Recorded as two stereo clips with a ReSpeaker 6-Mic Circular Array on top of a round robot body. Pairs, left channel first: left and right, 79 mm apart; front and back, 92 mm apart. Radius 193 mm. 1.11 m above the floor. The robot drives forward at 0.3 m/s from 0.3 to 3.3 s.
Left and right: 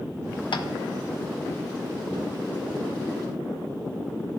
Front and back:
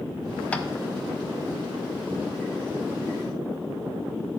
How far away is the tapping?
About 0.7 m.